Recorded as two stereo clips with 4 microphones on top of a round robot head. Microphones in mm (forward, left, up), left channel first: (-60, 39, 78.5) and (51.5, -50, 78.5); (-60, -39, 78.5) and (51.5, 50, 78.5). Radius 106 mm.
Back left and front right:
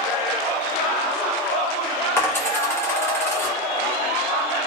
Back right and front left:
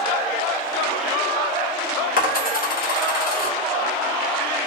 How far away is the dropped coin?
About 1.0 m.